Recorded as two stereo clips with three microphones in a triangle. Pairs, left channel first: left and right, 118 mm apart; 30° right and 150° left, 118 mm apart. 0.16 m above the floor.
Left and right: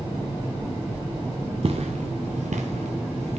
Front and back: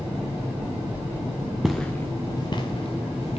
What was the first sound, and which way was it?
Footsteps, 125° right.